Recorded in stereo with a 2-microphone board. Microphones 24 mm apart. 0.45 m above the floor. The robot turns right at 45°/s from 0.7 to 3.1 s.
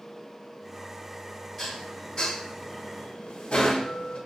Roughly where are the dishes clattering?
Centre.